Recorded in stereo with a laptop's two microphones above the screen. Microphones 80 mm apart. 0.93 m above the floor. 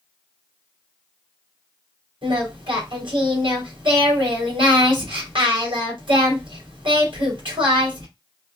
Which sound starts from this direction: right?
Singing, at 2.2 s.